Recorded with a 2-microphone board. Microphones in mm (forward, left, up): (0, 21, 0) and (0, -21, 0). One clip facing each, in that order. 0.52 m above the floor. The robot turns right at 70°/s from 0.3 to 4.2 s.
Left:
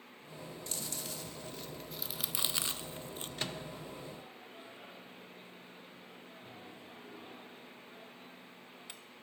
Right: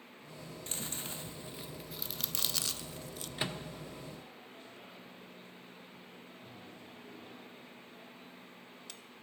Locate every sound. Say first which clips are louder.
0.7 s chewing: right 2 dB; 35° right (ahead or behind), 0.6 m; by 3.3 s 35° left (ahead or behind), 0.6 m
3.4 s a microwave: right 3 dB; 15° right (ahead or behind), 0.9 m; by 9.0 s 20° left (ahead or behind), 0.9 m